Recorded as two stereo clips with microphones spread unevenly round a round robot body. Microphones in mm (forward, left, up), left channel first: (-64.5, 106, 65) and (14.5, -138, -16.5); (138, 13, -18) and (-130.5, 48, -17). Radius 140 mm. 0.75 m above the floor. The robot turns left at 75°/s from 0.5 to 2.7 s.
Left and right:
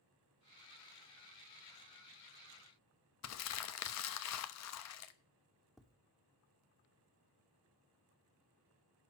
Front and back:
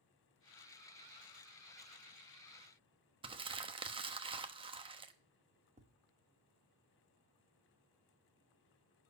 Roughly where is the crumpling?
Left.